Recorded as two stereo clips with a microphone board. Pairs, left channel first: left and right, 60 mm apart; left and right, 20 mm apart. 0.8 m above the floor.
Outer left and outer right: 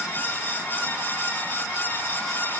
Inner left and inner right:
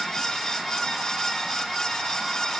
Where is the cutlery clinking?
I don't hear cutlery clinking.